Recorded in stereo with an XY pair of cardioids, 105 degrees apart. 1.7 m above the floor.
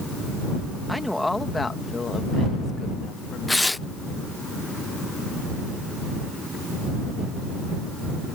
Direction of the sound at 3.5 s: 10° left.